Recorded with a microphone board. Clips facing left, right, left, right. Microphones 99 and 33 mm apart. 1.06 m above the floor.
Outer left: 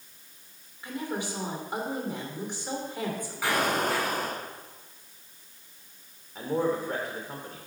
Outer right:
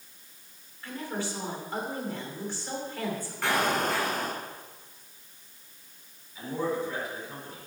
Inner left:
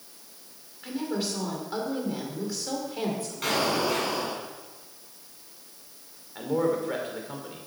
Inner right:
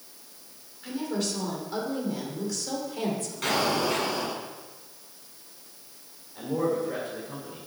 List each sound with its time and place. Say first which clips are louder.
0.8 s a woman speaking: outer left 1 dB, even; 15° left (ahead or behind), 2.5 m
3.4 s an explosion: even, even; 5° left (ahead or behind), 4 m
6.3 s a man speaking: outer left 3 dB, inner left 1 dB; 50° left (ahead or behind), 3 m